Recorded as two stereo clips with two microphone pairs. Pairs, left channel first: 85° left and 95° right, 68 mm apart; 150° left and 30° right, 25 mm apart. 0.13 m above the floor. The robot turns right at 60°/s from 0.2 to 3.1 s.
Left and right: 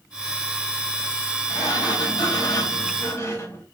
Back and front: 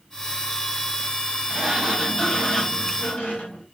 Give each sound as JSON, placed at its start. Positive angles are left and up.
{"t": 1.5, "sound": "a sliding door", "azimuth_deg": 45, "distance_m": 5.5}